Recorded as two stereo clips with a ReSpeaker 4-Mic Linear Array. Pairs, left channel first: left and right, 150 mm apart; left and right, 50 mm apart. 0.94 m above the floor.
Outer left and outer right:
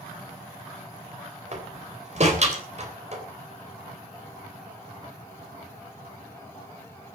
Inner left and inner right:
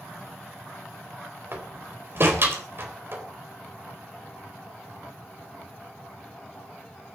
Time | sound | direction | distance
1.5 | a door slam | 50° right (ahead or behind) | 3.5 m